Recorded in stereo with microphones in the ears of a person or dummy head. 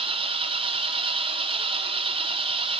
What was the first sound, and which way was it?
An engine running, 30° right (ahead or behind).